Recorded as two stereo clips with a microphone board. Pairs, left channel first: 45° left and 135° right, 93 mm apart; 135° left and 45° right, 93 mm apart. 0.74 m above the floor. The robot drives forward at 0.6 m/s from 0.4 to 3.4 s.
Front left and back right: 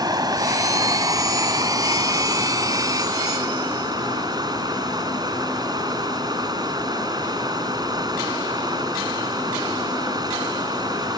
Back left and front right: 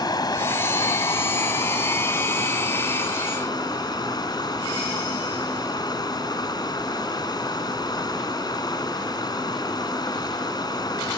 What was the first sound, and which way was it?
Running water, straight behind.